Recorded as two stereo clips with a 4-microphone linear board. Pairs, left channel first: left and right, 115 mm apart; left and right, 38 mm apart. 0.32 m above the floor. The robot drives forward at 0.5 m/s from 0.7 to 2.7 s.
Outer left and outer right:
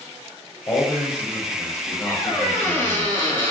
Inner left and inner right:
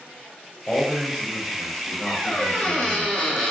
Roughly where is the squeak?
Left.